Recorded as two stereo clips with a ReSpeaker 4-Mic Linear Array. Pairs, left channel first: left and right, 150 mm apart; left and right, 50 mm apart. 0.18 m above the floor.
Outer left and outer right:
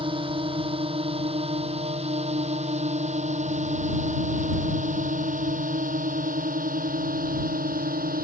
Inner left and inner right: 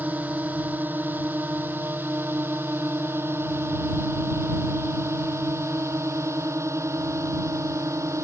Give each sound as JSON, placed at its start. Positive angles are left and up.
{"t": 0.0, "sound": "a drone", "side_deg": -35}